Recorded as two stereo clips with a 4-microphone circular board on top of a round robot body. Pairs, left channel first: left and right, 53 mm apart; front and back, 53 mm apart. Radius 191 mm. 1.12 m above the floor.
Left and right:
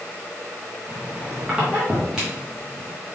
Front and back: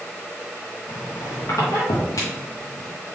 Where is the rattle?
I don't hear a rattle.